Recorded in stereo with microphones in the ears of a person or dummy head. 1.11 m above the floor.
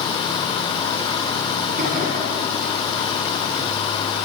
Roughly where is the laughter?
Right.